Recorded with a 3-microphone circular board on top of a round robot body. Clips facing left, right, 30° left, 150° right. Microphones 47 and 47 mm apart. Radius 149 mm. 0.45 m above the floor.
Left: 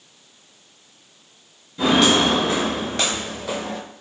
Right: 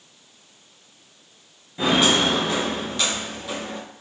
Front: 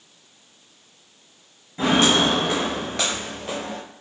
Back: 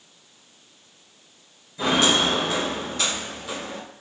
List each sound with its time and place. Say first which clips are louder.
1.8 s footsteps: left 2 dB, front 2 dB; 25° right, 0.6 m; by 3.8 s 85° left, 0.9 m